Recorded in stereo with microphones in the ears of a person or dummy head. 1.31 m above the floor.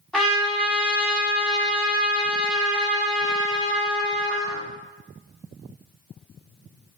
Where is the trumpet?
5° right (ahead or behind), 1.5 m.